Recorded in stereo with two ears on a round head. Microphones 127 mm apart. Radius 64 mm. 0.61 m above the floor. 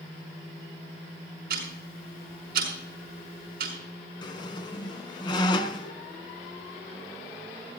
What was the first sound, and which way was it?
Ticking, 70° right (ahead or behind).